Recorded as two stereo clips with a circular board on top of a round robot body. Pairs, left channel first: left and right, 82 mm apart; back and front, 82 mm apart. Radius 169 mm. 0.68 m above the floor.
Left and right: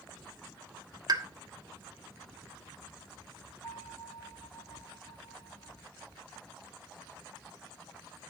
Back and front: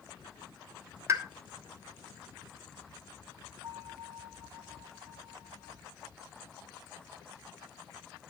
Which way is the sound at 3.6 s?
35° left.